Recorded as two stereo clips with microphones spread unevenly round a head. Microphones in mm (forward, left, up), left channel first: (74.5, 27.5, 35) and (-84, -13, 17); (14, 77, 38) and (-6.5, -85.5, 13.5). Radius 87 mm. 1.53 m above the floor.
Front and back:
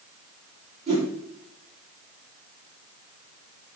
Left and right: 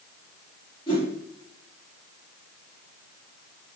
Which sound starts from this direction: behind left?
A whoosh, at 0.9 s.